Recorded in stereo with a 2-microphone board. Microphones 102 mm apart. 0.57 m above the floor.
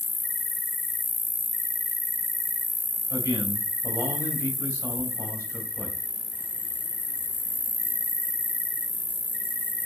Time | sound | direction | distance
0.0 | an insect | 15° left (ahead or behind) | 1.0 m
3.1 | a man speaking | 30° right (ahead or behind) | 4 m